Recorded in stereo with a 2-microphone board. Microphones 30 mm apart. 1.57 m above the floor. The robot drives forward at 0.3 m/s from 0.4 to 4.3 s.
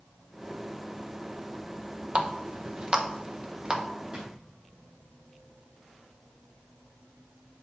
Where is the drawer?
30° right (ahead or behind), 3.5 m.